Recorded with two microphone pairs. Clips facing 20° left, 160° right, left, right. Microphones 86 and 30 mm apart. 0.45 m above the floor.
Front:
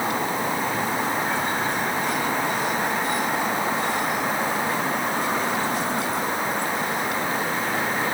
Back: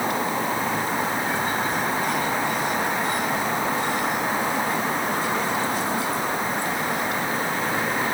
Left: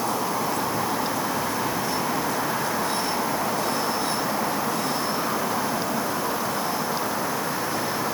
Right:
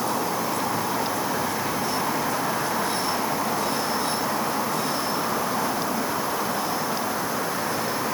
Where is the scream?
No scream in this recording.